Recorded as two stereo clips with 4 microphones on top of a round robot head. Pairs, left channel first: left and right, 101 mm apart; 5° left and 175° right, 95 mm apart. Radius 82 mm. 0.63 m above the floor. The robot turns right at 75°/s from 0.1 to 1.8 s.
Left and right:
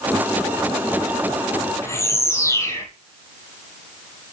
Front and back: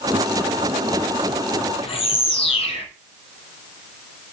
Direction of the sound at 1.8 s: 25° left.